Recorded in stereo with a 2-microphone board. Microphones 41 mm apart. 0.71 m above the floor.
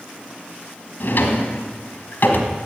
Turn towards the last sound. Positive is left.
turn(degrees=60)  # may be behind; listen again after turning